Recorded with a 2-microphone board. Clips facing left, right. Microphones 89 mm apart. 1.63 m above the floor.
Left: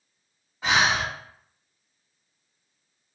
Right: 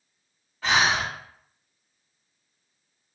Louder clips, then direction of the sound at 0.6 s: Even; 20° left (ahead or behind).